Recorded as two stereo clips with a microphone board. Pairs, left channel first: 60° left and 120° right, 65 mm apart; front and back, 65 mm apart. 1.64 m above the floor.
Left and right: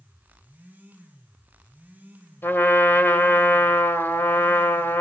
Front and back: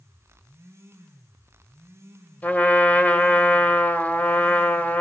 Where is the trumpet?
45° left, 1.7 m.